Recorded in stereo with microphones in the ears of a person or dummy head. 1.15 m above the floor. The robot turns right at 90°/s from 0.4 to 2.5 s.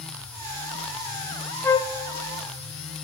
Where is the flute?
10° left (ahead or behind), 0.6 m; by 1.9 s 30° left (ahead or behind), 0.6 m.